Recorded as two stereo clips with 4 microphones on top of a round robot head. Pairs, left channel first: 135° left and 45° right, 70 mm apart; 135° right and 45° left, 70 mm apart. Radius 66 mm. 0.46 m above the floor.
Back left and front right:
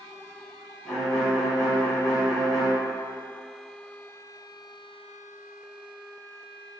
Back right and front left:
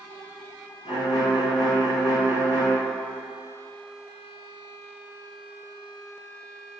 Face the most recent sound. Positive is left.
turn(degrees=-140)